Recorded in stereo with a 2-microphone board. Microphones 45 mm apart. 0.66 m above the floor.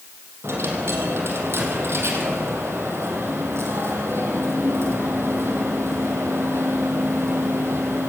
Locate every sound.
0.4 s a dropped coin: 65° right (ahead or behind), 5.5 m